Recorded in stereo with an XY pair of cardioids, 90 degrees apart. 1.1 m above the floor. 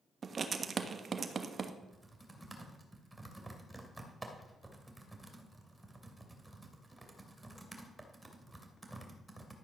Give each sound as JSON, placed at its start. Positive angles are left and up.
{"t": 0.2, "sound": "writing", "azimuth_deg": -45, "distance_m": 1.2}
{"t": 1.8, "sound": "typing on a keyboard", "azimuth_deg": -10, "distance_m": 2.5}